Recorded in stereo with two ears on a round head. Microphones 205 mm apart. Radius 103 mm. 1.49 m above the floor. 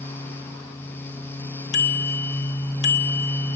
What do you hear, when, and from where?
1.7 s a bicycle bell: 80° left, 3 m